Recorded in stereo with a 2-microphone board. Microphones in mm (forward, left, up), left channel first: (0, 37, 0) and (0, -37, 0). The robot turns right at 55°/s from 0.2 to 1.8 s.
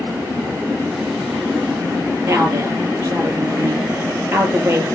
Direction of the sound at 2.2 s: 35° right (ahead or behind).